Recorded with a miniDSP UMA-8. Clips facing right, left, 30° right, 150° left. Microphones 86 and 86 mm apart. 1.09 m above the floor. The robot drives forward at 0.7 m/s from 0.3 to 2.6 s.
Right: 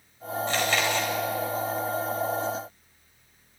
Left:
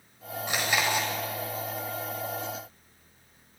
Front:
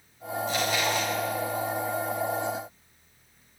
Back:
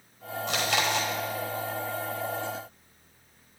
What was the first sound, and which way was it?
Chewing, 165° left.